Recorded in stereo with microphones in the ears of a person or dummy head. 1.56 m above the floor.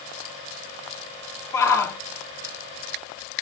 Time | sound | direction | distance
1.5 | a shout | 20° left (ahead or behind) | 2.5 m